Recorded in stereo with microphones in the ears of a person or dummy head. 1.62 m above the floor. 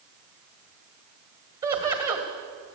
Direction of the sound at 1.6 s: 25° right (ahead or behind).